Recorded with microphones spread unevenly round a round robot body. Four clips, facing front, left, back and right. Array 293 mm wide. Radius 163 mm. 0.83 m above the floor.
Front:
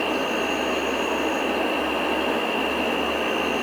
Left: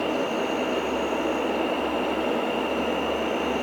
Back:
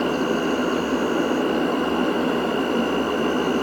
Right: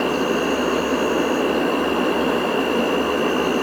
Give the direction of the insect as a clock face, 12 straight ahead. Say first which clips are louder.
Right 5 dB, back 3 dB; 4 o'clock.